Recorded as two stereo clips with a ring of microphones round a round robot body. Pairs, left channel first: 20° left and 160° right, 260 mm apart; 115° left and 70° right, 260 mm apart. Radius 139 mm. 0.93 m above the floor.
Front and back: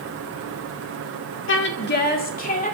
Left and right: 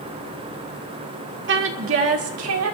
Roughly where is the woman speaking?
Ahead.